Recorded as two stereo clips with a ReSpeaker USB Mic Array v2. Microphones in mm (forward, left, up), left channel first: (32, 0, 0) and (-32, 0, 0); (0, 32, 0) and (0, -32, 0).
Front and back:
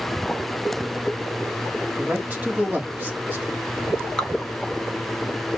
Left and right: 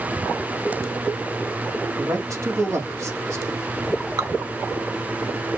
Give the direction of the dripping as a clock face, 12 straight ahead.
3 o'clock.